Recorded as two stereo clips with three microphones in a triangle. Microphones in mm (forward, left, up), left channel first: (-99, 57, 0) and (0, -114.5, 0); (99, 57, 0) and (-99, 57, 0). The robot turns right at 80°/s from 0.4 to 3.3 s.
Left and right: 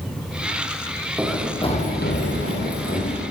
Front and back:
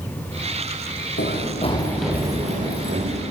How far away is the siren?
No siren in this recording.